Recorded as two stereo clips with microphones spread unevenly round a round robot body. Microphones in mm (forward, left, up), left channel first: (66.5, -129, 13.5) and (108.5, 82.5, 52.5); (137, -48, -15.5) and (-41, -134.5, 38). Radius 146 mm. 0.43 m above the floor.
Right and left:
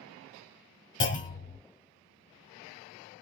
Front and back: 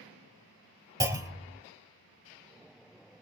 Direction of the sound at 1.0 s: 75° right.